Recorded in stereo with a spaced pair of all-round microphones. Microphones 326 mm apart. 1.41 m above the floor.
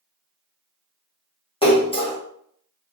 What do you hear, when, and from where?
1.6 s a splash: 15° left (ahead or behind), 1.3 m